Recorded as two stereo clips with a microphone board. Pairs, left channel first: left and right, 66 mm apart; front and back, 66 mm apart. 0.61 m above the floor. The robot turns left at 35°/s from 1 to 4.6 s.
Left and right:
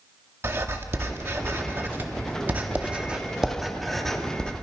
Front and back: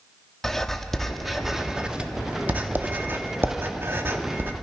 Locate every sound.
0.4 s writing: 85° right, 1.2 m; by 4.5 s 155° left, 1.2 m